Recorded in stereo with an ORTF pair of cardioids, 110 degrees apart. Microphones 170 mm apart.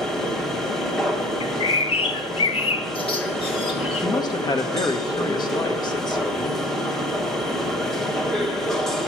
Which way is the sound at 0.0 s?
Straight ahead.